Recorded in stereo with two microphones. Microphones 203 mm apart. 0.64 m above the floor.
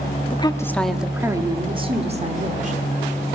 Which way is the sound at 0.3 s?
25° left (ahead or behind).